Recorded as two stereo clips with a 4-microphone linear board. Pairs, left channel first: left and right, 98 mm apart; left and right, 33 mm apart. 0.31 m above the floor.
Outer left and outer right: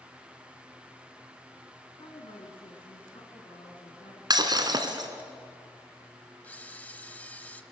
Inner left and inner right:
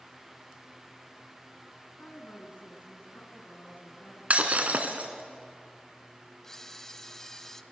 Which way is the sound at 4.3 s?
45° right (ahead or behind).